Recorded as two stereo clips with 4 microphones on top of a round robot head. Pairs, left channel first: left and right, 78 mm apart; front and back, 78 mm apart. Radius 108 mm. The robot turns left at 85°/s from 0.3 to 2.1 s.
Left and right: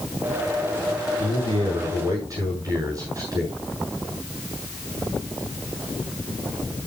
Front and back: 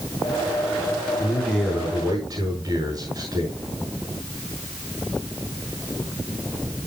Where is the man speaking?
60° right, 7.5 m; by 3.6 s 135° right, 7.5 m.